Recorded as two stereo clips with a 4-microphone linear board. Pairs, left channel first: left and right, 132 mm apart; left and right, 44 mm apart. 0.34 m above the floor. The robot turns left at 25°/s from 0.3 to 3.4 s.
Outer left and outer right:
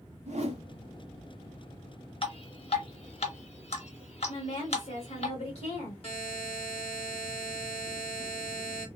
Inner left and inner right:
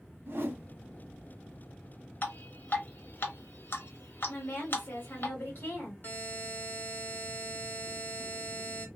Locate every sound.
0.3 s a whoosh: 60° right (ahead or behind), 0.7 m; by 0.6 s 50° right (ahead or behind), 0.7 m
2.2 s dripping: 40° left (ahead or behind), 0.8 m; by 5.3 s 50° left (ahead or behind), 0.8 m
4.3 s a woman speaking: 50° left (ahead or behind), 1.4 m
6.0 s a buzzer: 45° left (ahead or behind), 1.2 m